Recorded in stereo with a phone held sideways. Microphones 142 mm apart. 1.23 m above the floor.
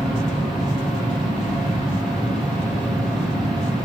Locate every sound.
0.0 s a machine running: centre (ahead or behind), 2 m